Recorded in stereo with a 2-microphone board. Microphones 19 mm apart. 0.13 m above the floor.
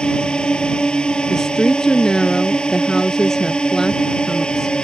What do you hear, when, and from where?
0.0 s a drone: 60° left (ahead or behind)
1.3 s a woman speaking: 30° left (ahead or behind)